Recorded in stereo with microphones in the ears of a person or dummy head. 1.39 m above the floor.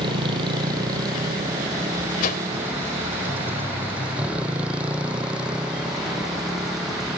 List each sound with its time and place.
0.0 s a motorcycle: 30° right (ahead or behind); by 7.2 s centre (ahead or behind)
2.2 s a whoosh: 50° left (ahead or behind)